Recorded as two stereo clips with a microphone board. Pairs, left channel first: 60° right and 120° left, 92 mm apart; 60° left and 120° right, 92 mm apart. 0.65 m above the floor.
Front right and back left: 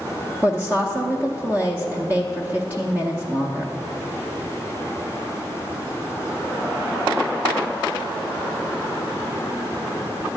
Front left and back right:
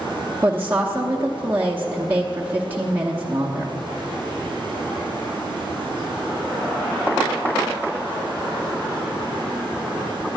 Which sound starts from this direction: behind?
A woman speaking, at 0.4 s.